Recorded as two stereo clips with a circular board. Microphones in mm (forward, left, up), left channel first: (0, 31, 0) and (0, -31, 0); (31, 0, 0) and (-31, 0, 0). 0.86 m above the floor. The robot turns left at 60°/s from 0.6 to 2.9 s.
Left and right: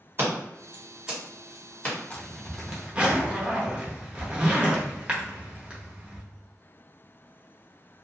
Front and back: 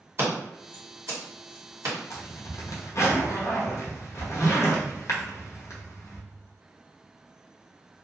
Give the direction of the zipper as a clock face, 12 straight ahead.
11 o'clock.